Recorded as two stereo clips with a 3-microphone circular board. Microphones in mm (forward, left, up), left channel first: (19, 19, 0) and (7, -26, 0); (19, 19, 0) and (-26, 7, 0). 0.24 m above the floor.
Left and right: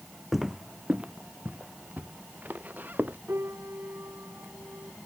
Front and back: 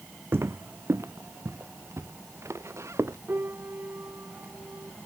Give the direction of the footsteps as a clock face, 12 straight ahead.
6 o'clock.